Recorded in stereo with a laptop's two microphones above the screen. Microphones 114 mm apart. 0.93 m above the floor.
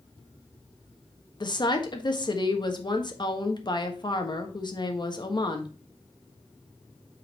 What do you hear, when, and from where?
1.4 s a woman speaking: 40° left (ahead or behind), 1.3 m